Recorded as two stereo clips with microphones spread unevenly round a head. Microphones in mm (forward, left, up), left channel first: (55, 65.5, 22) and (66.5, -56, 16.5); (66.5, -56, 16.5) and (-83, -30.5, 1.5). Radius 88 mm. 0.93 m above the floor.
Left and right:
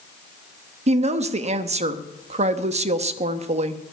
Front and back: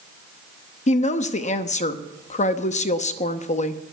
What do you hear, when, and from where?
0.9 s a woman speaking: 55° right, 1.0 m